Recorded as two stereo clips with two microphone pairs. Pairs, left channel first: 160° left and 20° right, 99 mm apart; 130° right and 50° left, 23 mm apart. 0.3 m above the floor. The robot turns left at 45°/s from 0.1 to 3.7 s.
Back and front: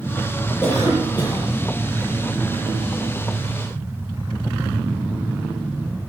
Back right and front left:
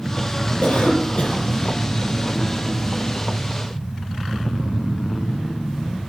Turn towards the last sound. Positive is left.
turn(degrees=85)